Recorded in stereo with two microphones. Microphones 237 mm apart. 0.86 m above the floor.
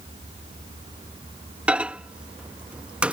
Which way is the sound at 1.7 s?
5° right (ahead or behind).